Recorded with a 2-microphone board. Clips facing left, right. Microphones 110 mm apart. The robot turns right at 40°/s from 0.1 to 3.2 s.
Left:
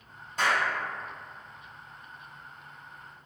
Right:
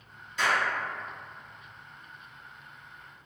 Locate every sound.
0.4 s a clap: 50° left (ahead or behind), 1.9 m